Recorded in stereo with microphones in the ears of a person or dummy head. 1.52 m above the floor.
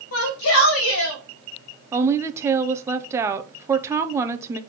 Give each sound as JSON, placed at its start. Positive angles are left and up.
{"t": 0.1, "sound": "a shout", "side_deg": 80, "distance_m": 2.5}
{"t": 1.9, "sound": "a woman speaking", "side_deg": -15, "distance_m": 0.7}